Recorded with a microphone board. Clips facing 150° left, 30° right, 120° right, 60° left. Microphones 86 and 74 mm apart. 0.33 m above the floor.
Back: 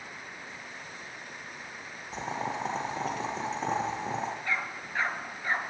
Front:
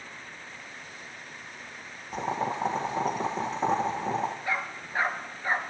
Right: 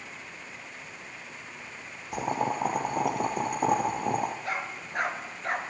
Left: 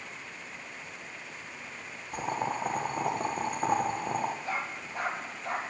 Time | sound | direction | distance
2.1 | boiling | 105° right | 2.5 m
4.5 | a dog barking | 105° right | 1.9 m